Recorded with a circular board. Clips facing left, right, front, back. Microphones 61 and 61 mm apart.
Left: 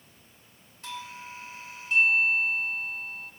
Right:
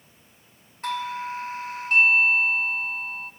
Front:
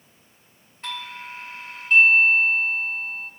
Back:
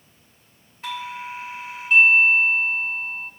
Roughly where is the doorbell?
Right.